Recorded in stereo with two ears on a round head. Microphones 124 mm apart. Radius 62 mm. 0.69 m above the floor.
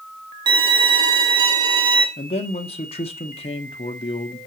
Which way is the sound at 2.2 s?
45° left (ahead or behind).